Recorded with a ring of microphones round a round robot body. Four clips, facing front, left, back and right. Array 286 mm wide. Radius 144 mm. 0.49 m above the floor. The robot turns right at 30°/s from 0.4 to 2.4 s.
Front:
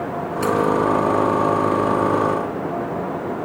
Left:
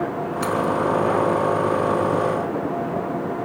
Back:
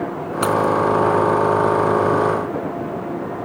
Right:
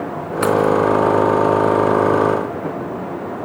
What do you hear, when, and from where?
0.4 s keys jangling: 130° right, 4 m; by 0.7 s 120° right, 4 m